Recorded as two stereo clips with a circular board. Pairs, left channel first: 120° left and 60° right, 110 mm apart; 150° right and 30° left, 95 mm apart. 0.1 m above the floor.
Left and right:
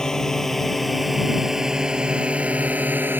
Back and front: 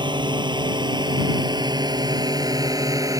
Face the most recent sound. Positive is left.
turn(degrees=0)